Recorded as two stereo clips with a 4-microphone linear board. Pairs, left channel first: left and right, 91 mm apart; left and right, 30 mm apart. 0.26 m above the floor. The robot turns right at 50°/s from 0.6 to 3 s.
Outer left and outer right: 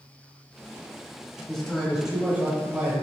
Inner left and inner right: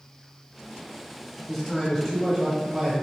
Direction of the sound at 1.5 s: 5° left (ahead or behind).